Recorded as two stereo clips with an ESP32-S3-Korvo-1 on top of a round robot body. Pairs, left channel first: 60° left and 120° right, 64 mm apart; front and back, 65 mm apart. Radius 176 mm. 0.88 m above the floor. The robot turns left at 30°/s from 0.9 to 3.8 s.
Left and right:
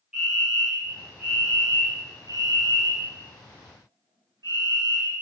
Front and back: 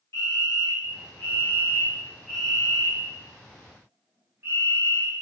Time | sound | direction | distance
0.1 | a fire alarm | 40° right | 8.5 m